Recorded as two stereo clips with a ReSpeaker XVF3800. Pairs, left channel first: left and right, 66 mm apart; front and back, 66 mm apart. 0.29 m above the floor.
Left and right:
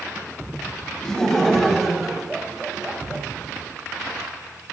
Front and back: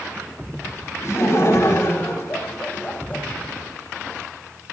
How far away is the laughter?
About 2.5 m.